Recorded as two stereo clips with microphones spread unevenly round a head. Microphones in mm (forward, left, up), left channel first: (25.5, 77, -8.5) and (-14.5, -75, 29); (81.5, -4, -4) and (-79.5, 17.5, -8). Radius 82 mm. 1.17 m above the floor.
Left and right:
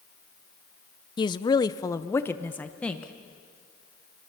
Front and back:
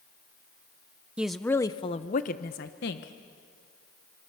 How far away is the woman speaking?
About 0.7 m.